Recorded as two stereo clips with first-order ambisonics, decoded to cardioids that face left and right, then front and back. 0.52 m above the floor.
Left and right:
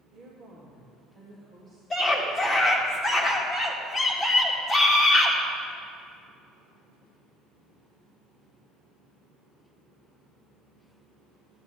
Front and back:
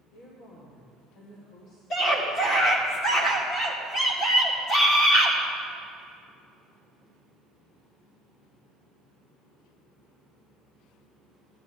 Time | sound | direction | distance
0.1 | a woman speaking | 40° right | 1.8 m
1.9 | a scream | 25° left | 1.6 m